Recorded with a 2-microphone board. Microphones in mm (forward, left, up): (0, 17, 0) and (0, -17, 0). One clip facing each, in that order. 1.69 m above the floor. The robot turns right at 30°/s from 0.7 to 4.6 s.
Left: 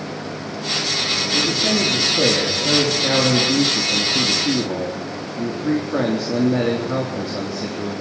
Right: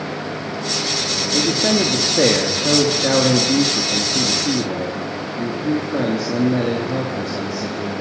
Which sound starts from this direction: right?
A man speaking, at 1.3 s.